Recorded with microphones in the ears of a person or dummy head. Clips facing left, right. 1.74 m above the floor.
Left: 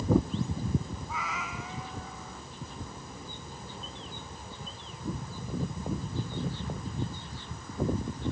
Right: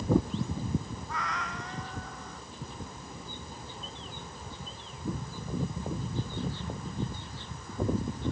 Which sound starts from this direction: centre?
A cat meowing, at 1.1 s.